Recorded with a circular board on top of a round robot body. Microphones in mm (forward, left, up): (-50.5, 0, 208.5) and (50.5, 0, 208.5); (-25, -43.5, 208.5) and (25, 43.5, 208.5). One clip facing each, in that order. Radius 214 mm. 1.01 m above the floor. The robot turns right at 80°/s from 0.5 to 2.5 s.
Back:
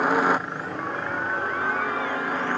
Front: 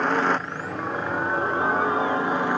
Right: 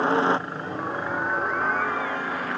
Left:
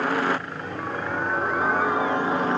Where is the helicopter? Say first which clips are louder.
Back 1 dB, right 2 dB; 105° right; by 2.6 s 55° left.